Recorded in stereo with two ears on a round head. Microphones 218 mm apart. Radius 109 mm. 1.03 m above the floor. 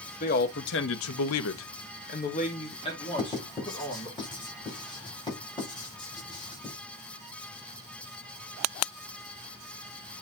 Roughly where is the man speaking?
Left.